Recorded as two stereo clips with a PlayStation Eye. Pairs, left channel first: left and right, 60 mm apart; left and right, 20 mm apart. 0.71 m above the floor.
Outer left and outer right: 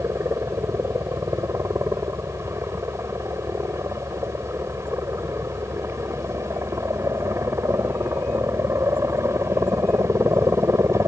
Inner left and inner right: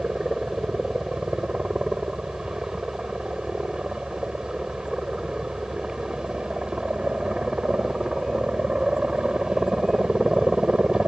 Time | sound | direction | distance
0.0 | a helicopter | 55° right (ahead or behind) | ?